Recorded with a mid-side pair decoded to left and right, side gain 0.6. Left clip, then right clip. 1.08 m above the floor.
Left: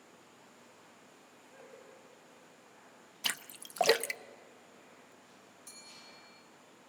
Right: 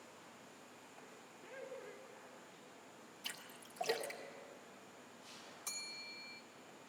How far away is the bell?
About 3.5 m.